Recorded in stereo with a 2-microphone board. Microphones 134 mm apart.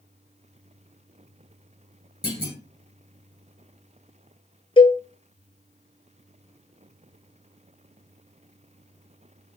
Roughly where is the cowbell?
Left.